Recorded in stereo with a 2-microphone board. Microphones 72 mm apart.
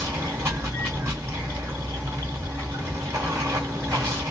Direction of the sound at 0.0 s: 40° right (ahead or behind).